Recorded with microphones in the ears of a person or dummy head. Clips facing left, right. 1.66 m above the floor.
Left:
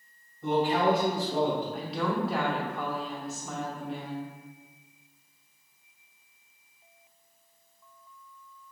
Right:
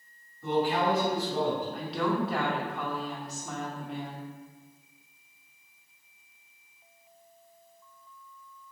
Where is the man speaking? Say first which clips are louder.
Left 2 dB; 20° left (ahead or behind), 1.4 m.